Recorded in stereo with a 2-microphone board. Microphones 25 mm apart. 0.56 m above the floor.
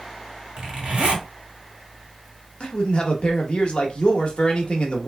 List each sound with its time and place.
0.6 s a zipper: 45° right (ahead or behind), 1.7 m
2.6 s a man speaking: 45° left (ahead or behind), 0.9 m